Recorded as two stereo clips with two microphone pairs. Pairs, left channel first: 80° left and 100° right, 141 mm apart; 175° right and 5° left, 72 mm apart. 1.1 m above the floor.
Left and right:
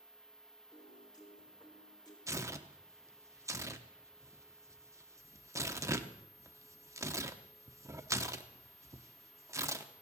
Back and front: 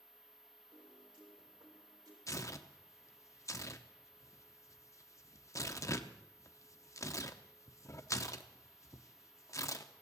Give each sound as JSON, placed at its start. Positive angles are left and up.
{"t": 0.7, "sound": "a piano", "azimuth_deg": 20, "distance_m": 3.5}
{"t": 2.3, "sound": "tearing paper", "azimuth_deg": -160, "distance_m": 0.7}